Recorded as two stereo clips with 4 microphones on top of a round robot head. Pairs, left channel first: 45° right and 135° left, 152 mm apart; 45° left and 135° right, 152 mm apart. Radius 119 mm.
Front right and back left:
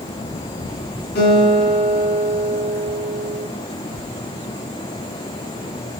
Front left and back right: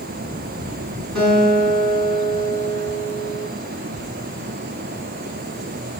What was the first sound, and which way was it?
A guitar, 40° right.